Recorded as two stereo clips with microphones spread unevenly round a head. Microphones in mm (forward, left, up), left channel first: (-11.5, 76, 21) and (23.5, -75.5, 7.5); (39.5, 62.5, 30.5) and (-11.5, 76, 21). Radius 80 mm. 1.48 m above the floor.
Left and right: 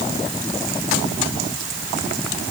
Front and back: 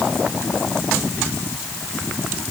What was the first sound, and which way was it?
Only background noise.